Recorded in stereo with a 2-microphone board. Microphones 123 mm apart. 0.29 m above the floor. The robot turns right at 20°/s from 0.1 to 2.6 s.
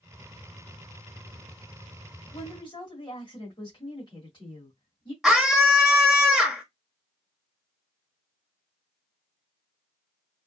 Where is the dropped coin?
No dropped coin in this recording.